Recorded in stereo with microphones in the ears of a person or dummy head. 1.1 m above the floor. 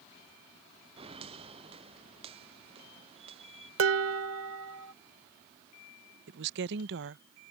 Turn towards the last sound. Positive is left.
turn(degrees=-65)  # may be behind; listen again after turning